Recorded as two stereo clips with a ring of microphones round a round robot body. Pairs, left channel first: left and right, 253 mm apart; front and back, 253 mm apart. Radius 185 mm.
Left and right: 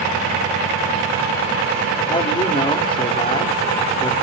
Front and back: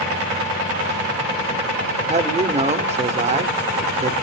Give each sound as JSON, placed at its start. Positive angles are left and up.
{"t": 2.1, "sound": "a man speaking", "azimuth_deg": 140, "distance_m": 0.9}